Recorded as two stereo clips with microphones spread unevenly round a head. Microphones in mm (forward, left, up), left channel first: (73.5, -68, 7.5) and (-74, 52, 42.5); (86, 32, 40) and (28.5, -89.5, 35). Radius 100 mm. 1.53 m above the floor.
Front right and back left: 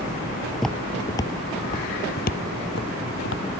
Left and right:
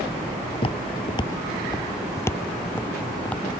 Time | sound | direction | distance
0.6 | footsteps | 65° left | ?